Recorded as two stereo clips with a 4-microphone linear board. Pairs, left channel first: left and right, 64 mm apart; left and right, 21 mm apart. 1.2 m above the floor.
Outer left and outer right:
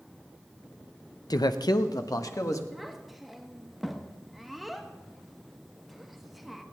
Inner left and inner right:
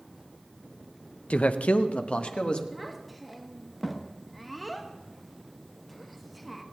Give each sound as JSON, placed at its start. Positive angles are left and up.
{"t": 1.3, "sound": "a man speaking", "side_deg": 70, "distance_m": 0.7}
{"t": 2.7, "sound": "a child speaking", "side_deg": 0, "distance_m": 1.2}